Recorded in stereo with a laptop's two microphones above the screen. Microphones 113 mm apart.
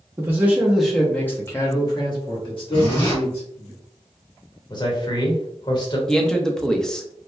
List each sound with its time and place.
0.2 s a man speaking: 20° right (ahead or behind), 1.0 m; by 3.7 s 65° left (ahead or behind), 1.7 m
2.7 s a zipper: 45° left (ahead or behind), 1.7 m
4.7 s a man speaking: 40° left (ahead or behind), 1.0 m
6.1 s a man speaking: 5° left (ahead or behind), 0.7 m